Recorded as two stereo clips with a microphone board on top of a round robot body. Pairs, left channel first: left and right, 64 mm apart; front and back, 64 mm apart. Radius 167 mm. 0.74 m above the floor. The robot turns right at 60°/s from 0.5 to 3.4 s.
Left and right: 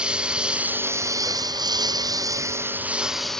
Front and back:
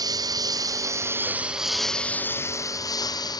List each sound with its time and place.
0.0 s a lawn mower: 165° right; by 3.4 s 10° left